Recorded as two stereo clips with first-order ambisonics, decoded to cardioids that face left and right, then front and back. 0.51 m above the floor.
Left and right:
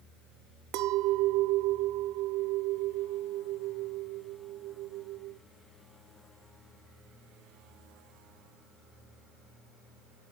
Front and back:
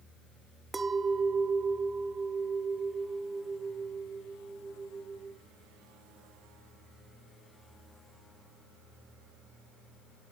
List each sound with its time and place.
0.7 s a clink: 105° right, 0.6 m